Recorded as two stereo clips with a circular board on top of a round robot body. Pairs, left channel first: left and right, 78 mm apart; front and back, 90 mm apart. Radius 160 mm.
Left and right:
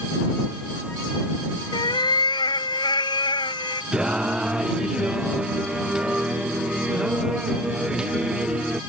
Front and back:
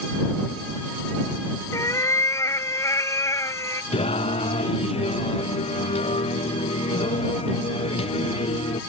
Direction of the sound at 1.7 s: 60° left.